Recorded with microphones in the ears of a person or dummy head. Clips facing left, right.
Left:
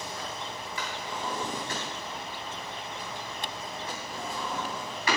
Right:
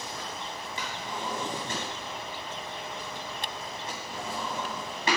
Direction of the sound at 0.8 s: 20° right (ahead or behind).